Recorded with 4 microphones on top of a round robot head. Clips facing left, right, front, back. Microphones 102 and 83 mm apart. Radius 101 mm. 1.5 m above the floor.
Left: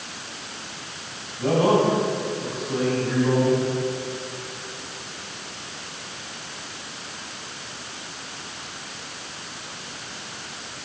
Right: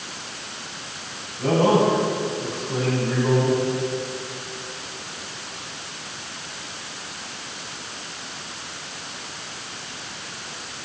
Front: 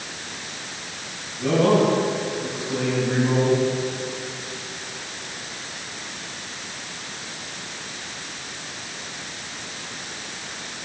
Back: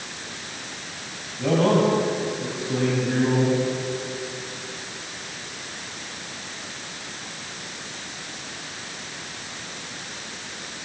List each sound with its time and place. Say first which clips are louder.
1.4 s a man speaking: right 1 dB, front 1 dB; 170° left, 9 m; by 3.6 s straight behind, 12 m